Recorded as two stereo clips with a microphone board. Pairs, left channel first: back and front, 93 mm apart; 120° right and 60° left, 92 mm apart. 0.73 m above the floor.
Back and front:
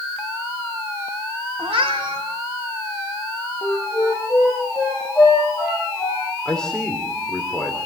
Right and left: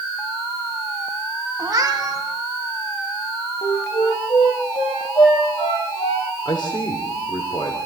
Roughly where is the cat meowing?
Ahead.